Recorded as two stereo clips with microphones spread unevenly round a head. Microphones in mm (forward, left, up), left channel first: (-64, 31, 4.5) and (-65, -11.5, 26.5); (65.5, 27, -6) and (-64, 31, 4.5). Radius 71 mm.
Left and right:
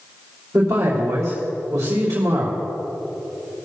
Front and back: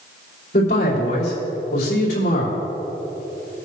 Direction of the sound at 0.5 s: 40° right.